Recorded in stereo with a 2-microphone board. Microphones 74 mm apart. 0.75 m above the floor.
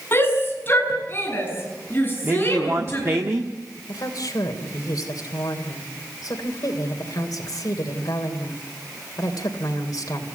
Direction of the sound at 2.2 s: 40° right (ahead or behind).